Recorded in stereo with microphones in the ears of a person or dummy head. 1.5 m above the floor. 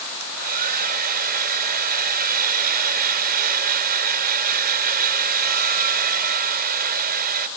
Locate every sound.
0.2 s a hair dryer: 50° right (ahead or behind)